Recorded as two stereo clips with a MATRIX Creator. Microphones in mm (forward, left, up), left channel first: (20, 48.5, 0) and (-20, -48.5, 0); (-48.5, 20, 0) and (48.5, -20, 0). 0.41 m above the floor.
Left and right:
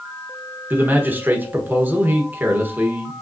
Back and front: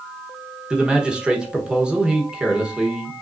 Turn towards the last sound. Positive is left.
turn(degrees=-85)